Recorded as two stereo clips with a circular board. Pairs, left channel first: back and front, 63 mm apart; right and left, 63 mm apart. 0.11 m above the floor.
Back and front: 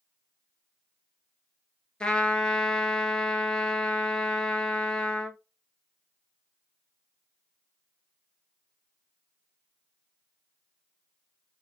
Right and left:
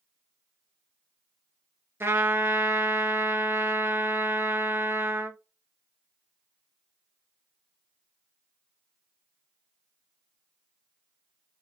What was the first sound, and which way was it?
A trumpet, 110° left.